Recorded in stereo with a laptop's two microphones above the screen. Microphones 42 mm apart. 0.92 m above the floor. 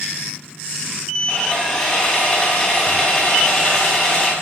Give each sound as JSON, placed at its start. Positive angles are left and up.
{"t": 1.3, "sound": "sawing", "side_deg": 25, "distance_m": 5.0}